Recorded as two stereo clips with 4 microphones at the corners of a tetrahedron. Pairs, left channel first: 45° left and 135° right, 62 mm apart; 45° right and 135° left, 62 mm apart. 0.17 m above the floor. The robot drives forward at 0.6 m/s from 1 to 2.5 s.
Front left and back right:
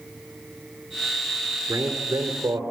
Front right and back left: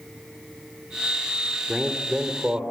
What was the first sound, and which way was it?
A man speaking, 155° right.